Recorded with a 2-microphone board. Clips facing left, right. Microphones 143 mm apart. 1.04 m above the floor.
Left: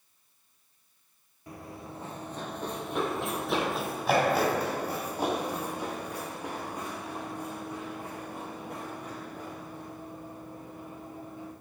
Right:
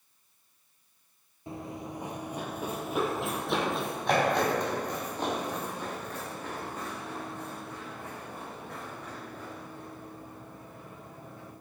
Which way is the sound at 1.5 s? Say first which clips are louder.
Right 4 dB; 25° right (ahead or behind).